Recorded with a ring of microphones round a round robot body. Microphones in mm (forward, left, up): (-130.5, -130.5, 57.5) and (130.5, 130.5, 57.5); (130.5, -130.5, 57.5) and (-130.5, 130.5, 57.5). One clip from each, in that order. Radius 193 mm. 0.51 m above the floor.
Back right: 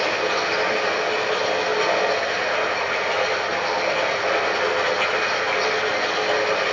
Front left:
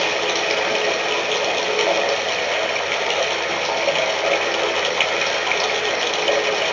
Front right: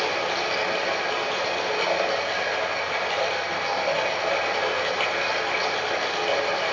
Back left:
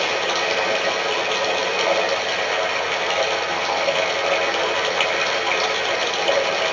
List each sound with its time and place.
0.0 s running water: 70° left, 1.7 m